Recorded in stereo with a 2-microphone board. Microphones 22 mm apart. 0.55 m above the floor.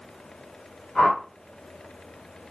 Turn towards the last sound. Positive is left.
turn(degrees=65)  # may be behind; listen again after turning